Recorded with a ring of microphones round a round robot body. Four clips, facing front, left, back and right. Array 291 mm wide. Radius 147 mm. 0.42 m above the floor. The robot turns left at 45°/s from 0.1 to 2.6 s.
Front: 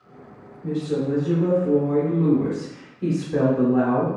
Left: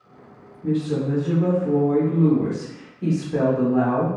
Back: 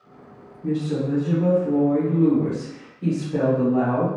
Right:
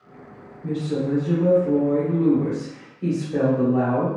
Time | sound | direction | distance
0.6 | a woman speaking | 125° left | 1.2 m